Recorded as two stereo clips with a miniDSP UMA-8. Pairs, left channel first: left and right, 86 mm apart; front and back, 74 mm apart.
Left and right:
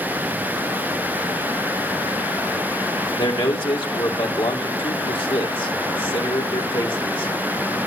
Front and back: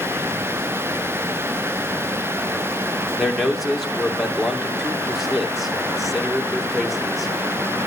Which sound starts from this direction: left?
A man speaking, at 3.2 s.